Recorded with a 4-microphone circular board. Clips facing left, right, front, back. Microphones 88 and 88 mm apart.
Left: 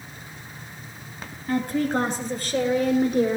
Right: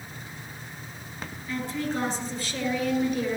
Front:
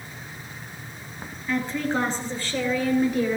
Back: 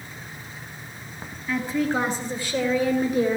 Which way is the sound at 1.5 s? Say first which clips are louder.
Left 7 dB, back 1 dB; 90° left.